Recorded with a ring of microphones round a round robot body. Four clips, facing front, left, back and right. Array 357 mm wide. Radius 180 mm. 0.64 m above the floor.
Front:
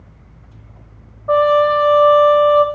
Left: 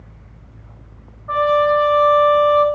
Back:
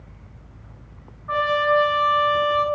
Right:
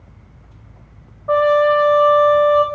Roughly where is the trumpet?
Ahead right.